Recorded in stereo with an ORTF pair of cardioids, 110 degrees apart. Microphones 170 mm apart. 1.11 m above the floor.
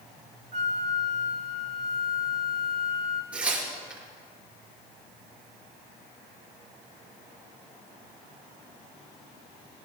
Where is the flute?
40° right, 1.3 m.